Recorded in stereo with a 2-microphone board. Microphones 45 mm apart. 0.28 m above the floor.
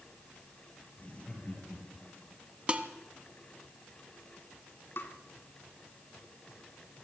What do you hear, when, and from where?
1.0 s laughter: 30° left (ahead or behind), 7.5 m; by 2.4 s 25° left (ahead or behind), 7 m
2.7 s dishes clattering: 25° right (ahead or behind), 1.5 m
5.0 s tapping: 55° left (ahead or behind), 2.5 m